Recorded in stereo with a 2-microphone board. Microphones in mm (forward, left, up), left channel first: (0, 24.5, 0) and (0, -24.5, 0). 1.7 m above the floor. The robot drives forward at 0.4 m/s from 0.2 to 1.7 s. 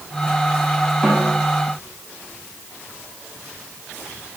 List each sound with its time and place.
1.0 s a snare drum: 20° left (ahead or behind), 2.5 m